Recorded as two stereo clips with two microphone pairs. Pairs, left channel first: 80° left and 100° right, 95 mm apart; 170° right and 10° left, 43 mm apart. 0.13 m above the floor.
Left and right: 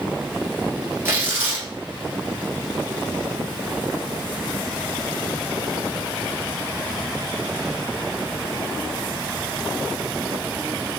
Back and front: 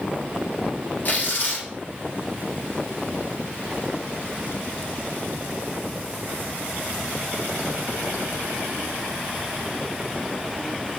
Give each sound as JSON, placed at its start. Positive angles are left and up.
{"t": 1.1, "sound": "tearing paper", "azimuth_deg": -155, "distance_m": 1.4}